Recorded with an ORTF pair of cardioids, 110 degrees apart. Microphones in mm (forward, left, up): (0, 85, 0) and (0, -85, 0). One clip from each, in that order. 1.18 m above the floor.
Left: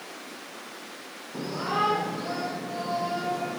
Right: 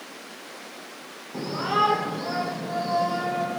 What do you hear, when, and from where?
1.3 s a shout: 20° right, 3 m; by 3.6 s 45° right, 5 m